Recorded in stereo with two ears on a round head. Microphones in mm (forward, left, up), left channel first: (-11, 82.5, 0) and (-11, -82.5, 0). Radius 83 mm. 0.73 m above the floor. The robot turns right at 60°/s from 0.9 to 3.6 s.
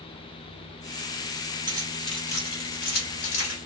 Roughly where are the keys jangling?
Right.